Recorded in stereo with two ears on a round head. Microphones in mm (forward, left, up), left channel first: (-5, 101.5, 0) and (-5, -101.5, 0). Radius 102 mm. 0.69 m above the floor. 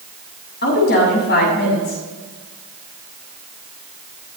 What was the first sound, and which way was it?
A woman speaking, 50° left (ahead or behind).